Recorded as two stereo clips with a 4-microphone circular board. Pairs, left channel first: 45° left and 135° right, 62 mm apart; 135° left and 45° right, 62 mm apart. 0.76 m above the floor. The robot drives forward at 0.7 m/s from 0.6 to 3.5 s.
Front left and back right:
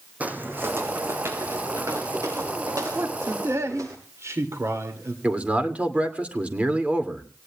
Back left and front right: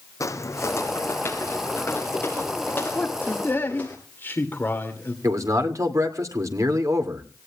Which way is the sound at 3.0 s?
170° right.